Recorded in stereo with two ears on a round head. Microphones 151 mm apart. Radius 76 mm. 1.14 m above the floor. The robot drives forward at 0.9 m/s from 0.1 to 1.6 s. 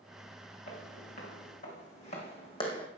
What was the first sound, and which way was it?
Footsteps, 45° left (ahead or behind).